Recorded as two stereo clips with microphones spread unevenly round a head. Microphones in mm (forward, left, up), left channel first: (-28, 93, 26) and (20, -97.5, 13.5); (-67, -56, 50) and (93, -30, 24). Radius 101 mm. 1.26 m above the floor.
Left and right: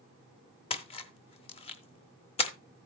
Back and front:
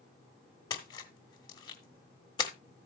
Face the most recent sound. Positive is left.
turn(degrees=145)